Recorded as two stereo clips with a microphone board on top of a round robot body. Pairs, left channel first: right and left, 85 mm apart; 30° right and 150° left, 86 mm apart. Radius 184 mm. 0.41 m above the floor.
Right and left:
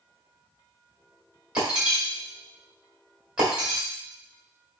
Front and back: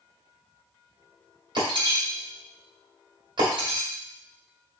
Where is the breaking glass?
170° left, 1.8 m.